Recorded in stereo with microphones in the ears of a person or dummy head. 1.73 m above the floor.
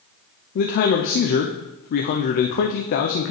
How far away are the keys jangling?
I don't hear keys jangling.